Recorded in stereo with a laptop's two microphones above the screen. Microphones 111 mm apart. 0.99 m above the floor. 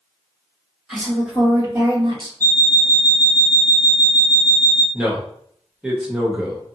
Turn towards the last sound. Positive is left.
turn(degrees=-5)  # may be behind; listen again after turning